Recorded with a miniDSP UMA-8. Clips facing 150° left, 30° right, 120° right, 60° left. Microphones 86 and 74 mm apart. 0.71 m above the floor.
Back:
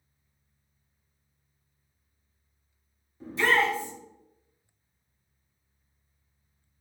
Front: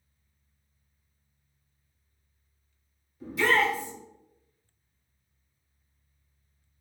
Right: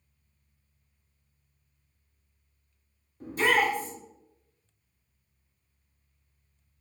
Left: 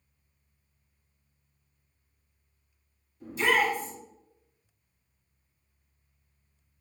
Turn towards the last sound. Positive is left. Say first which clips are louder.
# even, right 1 dB
turn(degrees=-150)